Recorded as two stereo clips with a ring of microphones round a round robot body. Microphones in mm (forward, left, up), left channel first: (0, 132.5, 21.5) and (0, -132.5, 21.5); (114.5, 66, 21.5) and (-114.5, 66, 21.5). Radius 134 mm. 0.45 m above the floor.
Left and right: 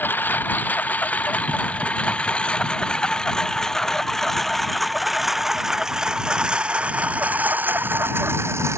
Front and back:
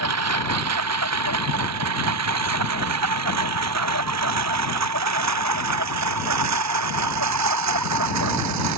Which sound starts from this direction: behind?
A lawn mower, at 0.0 s.